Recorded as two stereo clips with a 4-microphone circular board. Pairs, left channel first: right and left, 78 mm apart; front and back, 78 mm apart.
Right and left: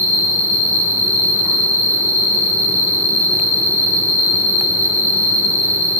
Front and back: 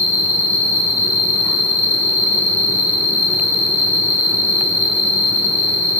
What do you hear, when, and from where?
0.0 s an insect: 50° left, 1.5 m